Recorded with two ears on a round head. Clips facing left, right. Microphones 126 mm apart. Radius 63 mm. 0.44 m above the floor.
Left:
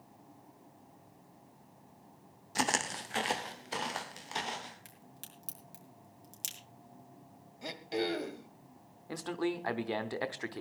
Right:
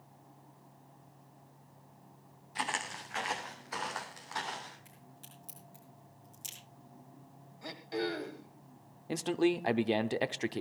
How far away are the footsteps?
About 1.1 m.